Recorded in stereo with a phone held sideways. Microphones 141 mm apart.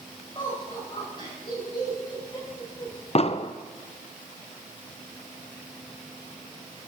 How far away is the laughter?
About 8.5 m.